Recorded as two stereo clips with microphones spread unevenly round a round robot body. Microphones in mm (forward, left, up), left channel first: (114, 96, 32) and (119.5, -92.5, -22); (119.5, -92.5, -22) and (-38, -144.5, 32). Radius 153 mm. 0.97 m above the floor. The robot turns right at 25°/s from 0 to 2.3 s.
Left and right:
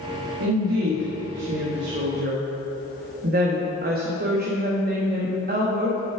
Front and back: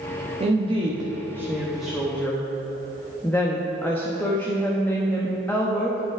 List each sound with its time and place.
0.4 s a woman speaking: 105° right, 1.3 m; by 6.0 s 55° right, 1.3 m